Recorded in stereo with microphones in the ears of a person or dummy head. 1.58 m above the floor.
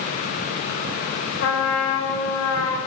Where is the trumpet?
70° left (ahead or behind), 6.5 m.